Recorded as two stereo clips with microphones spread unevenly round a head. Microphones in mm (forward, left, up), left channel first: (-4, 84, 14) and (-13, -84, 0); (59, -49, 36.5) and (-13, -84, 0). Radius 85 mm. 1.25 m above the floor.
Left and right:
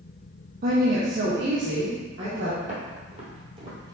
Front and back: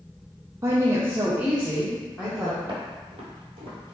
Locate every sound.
0.6 s a woman speaking: 120° right, 0.7 m; by 2.5 s 75° right, 1.4 m
2.6 s footsteps: 125° right, 2.0 m; by 3.9 s 155° right, 1.5 m